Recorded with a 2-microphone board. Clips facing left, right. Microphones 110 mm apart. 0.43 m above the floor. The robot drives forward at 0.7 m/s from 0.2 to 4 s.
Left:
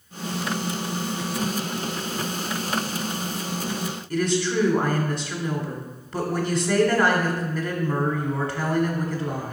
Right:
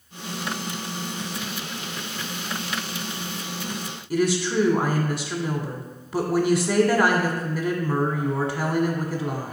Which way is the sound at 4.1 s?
20° right (ahead or behind).